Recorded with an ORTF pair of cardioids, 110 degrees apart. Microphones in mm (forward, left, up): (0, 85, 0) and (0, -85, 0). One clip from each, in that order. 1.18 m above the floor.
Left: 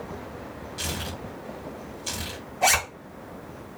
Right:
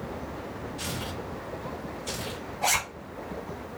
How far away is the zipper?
About 1.0 m.